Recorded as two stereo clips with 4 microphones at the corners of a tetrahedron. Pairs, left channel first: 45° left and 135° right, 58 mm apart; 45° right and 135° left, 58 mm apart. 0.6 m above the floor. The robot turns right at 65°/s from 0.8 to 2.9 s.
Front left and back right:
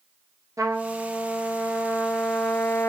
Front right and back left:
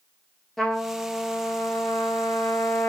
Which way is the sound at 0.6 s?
130° right.